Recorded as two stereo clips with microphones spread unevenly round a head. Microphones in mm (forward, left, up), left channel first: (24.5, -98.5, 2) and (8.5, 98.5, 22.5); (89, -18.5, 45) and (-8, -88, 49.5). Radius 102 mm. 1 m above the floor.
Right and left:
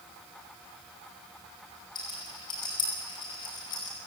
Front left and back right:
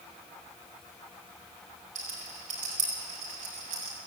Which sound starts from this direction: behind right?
A rattle, at 1.9 s.